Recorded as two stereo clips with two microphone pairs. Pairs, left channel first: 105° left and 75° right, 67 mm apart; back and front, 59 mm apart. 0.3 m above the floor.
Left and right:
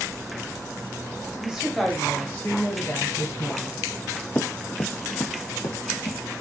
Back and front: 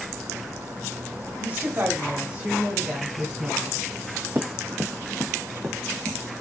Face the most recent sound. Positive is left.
turn(degrees=105)